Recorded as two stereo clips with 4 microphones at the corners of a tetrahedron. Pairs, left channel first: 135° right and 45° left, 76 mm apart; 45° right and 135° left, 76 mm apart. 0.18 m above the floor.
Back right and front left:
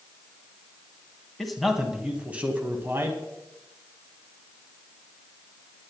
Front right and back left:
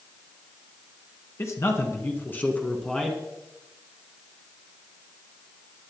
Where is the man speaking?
50° right, 2.0 m; by 3.2 s 35° left, 1.9 m.